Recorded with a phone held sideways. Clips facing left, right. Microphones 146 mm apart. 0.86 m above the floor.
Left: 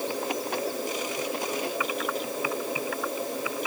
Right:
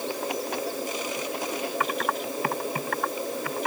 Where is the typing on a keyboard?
60° right (ahead or behind).